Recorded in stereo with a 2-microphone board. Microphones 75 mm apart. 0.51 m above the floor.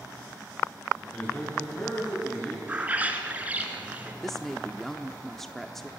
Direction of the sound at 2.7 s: 20° right (ahead or behind).